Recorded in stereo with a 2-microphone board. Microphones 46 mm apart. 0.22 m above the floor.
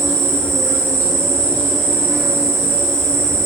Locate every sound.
0.0 s an insect: 70° right (ahead or behind), 1.4 m